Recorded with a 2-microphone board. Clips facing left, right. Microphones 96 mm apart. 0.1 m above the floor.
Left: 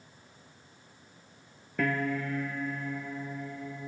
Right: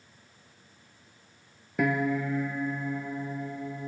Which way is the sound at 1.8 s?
15° right (ahead or behind).